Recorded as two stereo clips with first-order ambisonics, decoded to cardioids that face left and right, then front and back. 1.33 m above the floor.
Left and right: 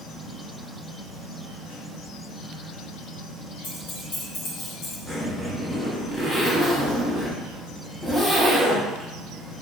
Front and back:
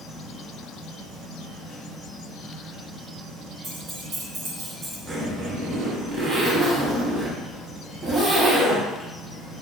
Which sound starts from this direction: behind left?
Keys jangling, at 3.6 s.